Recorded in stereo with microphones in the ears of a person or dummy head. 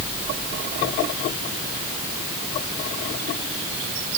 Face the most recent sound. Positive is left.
No sound to turn to.